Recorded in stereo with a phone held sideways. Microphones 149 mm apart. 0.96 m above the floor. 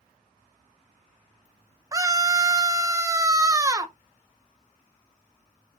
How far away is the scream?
About 0.8 m.